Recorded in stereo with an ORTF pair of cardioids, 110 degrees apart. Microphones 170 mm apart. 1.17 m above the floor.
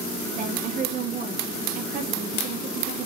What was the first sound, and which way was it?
A woman speaking, 60° right.